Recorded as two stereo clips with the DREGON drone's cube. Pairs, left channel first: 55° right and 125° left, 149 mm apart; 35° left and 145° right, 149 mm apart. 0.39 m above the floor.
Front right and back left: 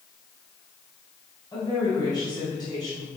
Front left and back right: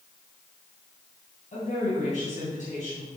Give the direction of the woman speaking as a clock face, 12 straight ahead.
12 o'clock.